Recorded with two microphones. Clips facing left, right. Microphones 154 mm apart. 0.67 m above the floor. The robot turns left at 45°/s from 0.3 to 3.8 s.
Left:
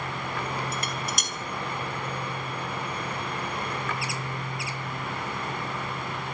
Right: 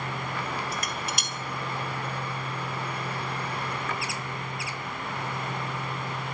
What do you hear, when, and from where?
0.7 s dishes clattering: 25° left (ahead or behind), 2.5 m; by 1.3 s 50° left (ahead or behind), 2.5 m